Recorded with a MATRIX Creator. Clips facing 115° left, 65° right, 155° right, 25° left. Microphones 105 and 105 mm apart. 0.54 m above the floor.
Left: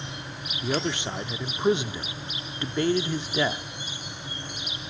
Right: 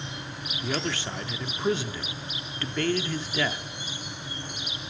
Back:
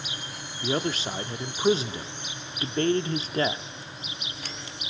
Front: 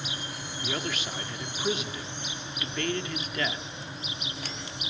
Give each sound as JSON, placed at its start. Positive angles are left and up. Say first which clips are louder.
{"t": 0.6, "sound": "a man speaking", "louder": "left 3 dB, back 6 dB", "azimuth_deg": 170, "distance_m": 0.7}